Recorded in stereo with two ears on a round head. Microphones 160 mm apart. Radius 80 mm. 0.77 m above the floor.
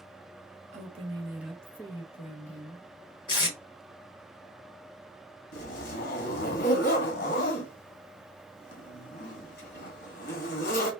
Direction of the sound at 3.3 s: 25° left (ahead or behind).